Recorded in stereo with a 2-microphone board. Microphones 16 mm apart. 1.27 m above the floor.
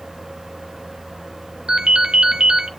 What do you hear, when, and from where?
1.7 s a ringtone: 65° right (ahead or behind), 2.5 m